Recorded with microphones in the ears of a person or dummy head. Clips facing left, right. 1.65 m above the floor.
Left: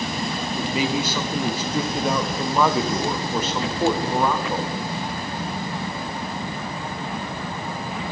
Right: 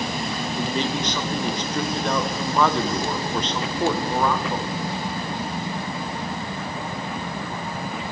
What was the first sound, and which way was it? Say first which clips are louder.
A man speaking: left 2 dB; 5° left (ahead or behind).